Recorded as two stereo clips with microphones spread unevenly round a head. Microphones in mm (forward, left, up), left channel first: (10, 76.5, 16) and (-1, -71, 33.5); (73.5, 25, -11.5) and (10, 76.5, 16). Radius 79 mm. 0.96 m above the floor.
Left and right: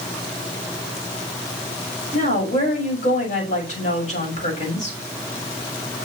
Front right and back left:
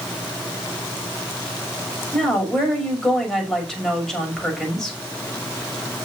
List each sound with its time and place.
2.1 s a woman speaking: 45° left, 6 m